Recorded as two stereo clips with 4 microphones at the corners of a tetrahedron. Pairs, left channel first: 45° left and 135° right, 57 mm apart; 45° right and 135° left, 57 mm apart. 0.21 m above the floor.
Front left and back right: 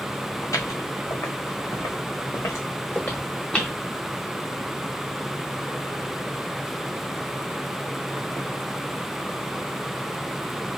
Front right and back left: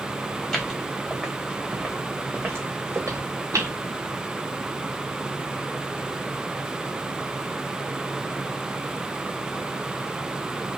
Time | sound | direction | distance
0.4 | footsteps | 35° left | 1.7 m